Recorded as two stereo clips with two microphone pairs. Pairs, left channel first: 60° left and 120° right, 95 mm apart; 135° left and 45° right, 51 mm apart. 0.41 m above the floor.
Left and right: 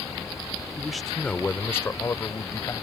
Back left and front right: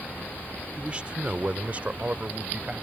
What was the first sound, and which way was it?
A man speaking, 60° right.